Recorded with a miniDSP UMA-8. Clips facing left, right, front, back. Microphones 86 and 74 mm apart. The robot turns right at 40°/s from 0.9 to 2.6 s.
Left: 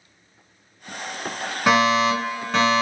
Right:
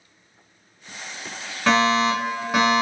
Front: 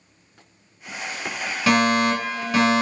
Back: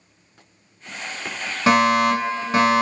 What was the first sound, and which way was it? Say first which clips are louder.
A fire alarm: left 1 dB, back 3 dB; 160° left.